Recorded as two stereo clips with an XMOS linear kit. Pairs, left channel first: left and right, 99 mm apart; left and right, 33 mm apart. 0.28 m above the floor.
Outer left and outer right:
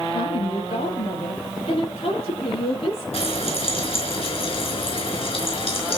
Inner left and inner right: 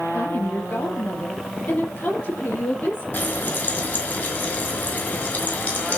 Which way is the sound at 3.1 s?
70° left (ahead or behind).